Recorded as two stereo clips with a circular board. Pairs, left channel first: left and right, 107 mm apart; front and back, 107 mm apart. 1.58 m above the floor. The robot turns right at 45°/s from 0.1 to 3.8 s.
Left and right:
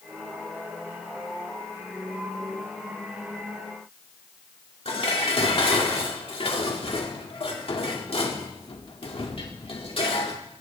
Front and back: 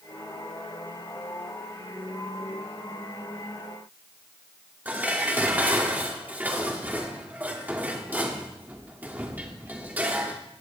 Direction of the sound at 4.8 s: 105° left.